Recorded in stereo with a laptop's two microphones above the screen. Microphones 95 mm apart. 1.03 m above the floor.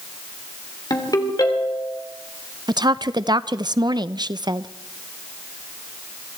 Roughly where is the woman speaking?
Right.